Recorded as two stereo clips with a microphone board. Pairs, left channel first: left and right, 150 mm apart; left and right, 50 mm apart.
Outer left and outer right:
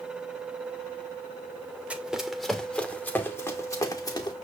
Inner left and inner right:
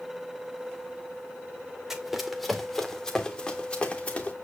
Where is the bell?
I don't hear a bell.